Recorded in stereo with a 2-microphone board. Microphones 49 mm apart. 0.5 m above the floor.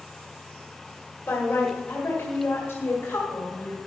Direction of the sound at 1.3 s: 50° left (ahead or behind).